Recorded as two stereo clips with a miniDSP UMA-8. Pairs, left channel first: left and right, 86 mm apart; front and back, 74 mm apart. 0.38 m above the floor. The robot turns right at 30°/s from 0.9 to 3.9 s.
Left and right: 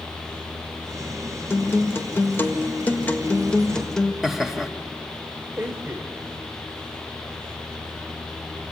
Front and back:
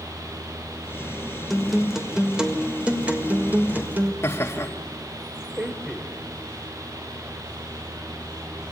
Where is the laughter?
10° right, 1.1 m.